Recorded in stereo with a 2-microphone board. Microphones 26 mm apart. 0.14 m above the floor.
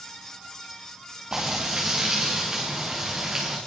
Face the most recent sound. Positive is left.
turn(degrees=-25)  # may be behind; listen again after turning